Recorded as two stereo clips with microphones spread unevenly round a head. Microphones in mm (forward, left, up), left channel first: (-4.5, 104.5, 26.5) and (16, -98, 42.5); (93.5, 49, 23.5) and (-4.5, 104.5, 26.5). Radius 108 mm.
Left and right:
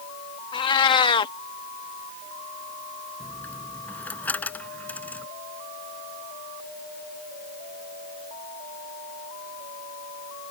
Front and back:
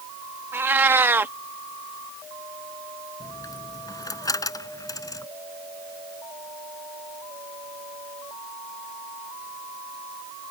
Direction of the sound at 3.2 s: 10° left.